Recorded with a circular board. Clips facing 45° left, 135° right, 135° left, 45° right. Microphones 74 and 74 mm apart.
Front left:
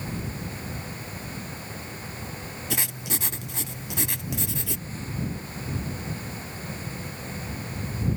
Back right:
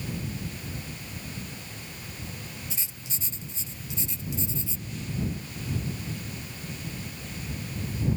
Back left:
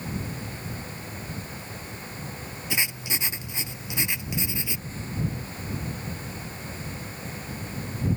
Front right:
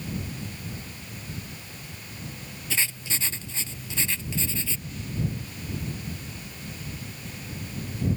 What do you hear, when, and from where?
2.7 s writing: 60° left